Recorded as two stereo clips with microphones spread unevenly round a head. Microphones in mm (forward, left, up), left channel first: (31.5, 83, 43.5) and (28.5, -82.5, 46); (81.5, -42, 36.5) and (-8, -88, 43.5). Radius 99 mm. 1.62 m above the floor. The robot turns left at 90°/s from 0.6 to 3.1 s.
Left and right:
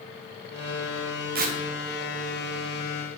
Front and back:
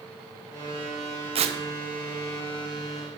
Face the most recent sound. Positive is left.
turn(degrees=75)